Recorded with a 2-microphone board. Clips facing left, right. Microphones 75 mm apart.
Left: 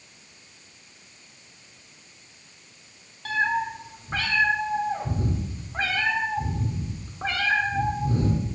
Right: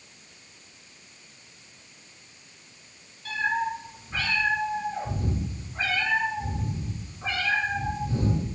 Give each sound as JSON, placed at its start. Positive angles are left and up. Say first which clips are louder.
{"t": 3.2, "sound": "a cat meowing", "louder": "left 2 dB", "side_deg": 60, "distance_m": 1.2}